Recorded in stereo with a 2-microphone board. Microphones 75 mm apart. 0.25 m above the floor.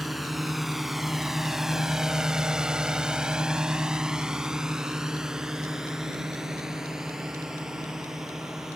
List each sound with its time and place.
0.0 s a drone: centre (ahead or behind); by 8.8 s 5° right (ahead or behind)